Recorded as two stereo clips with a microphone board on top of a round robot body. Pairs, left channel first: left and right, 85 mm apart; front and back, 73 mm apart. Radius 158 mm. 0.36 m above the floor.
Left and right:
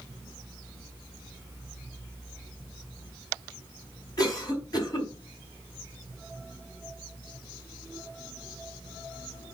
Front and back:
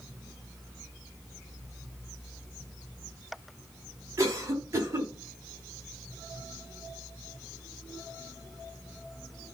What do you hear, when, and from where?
4.2 s a cough: 130° left, 5 m